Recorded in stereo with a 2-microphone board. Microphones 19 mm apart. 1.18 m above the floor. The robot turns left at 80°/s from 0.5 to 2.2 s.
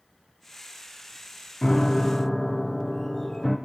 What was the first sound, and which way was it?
A piano, 30° left (ahead or behind).